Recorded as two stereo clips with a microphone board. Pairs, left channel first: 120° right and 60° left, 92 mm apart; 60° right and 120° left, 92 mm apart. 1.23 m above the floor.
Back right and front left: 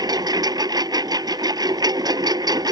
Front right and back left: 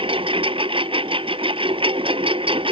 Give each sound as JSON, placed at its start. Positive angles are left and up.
{"t": 0.0, "sound": "a lawn mower", "azimuth_deg": 105}